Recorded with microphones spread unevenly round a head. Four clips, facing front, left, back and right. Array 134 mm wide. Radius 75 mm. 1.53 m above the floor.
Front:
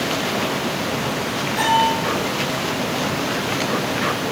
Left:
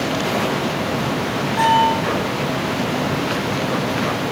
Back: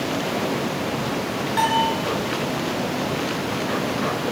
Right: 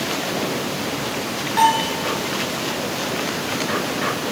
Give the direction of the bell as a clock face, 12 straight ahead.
4 o'clock.